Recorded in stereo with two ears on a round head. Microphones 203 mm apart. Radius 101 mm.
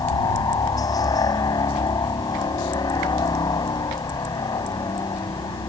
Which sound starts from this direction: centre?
A helicopter, at 0.0 s.